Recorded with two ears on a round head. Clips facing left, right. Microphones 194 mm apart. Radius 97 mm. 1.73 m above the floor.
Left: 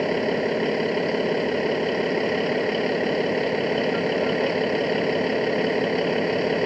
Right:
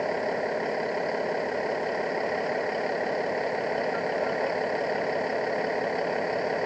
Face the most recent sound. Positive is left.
turn(degrees=45)  # may be behind; listen again after turning